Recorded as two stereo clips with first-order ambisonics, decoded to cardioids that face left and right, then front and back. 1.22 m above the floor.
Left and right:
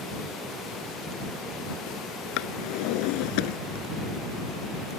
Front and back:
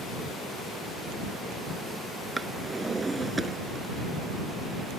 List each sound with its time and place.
2.4 s a drawer: 100° left